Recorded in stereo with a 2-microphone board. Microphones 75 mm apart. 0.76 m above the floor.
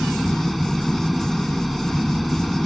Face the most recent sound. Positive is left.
turn(degrees=0)  # may be behind; listen again after turning